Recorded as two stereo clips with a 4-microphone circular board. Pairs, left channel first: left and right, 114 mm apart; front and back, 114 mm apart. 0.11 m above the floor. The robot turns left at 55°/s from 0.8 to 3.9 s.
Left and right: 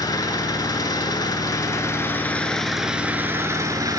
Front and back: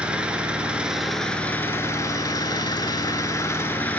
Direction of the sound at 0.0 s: 105° left.